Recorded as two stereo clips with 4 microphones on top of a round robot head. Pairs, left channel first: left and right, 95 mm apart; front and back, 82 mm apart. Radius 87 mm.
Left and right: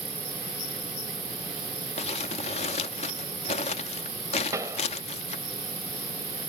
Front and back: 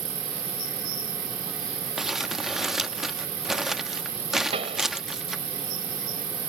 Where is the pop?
160° right.